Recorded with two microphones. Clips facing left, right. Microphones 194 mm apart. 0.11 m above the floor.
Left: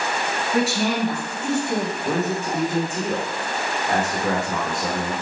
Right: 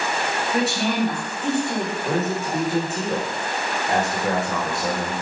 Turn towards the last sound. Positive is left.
turn(degrees=20)  # may be behind; listen again after turning